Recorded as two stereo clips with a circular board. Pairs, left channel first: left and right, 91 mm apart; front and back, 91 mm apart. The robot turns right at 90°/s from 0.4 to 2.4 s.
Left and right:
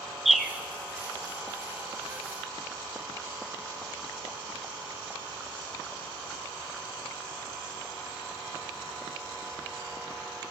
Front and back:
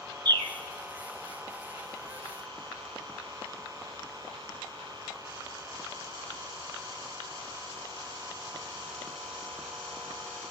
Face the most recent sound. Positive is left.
turn(degrees=5)